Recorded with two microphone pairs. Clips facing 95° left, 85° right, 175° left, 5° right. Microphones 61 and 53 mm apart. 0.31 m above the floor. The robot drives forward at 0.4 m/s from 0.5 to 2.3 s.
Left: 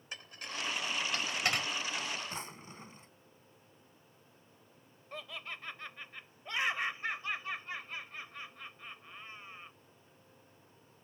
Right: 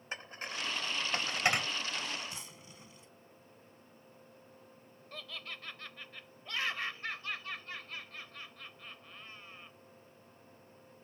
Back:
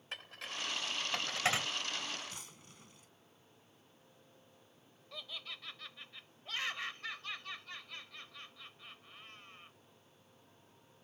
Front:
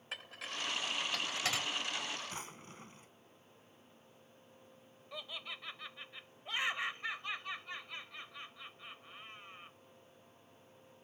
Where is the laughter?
45° left.